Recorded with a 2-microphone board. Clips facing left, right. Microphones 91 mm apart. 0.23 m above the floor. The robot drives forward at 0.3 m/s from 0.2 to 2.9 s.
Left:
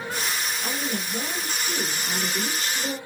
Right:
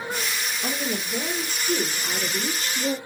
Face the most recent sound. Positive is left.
turn(degrees=-45)  # may be behind; listen again after turning